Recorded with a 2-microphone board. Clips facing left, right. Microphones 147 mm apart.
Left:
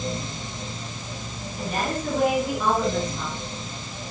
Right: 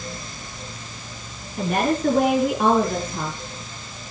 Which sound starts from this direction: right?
A woman speaking, at 1.6 s.